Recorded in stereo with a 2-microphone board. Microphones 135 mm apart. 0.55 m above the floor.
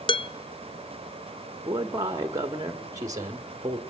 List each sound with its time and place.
0.1 s dishes clattering: 40° left (ahead or behind), 0.5 m
1.6 s a man speaking: 25° right (ahead or behind), 1.3 m